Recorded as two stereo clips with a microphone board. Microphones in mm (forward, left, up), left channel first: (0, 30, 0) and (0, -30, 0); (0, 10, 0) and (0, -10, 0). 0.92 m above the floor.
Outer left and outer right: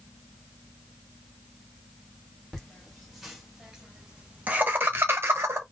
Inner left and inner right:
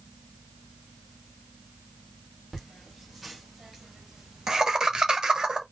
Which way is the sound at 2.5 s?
Centre (ahead or behind).